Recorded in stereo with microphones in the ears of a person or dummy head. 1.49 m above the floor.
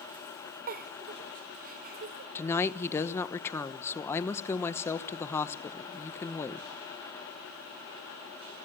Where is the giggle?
45° right (ahead or behind), 0.9 m.